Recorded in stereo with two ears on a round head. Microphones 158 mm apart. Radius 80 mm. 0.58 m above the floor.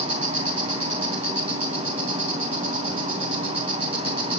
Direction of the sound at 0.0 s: 35° right (ahead or behind).